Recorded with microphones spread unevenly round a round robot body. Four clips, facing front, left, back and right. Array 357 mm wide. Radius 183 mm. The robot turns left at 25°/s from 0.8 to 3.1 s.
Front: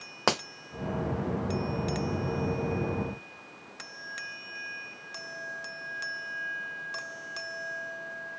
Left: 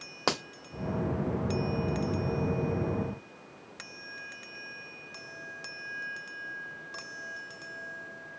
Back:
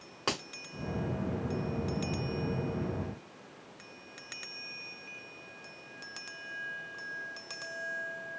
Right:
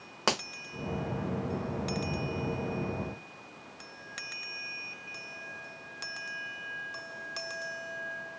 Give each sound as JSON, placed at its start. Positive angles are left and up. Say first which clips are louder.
{"t": 0.3, "sound": "a finger snap", "louder": "even, front 7 dB", "azimuth_deg": 5, "distance_m": 1.2}